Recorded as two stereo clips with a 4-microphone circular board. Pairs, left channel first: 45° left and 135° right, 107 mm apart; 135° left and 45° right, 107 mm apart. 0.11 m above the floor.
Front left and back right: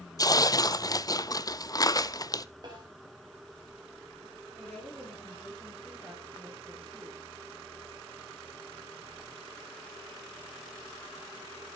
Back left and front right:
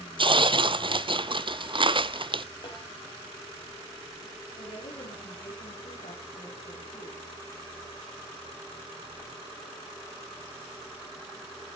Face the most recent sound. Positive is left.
turn(degrees=130)